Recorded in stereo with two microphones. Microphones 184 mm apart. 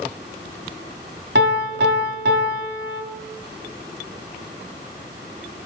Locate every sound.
1.4 s a piano: 65° right (ahead or behind), 1.5 m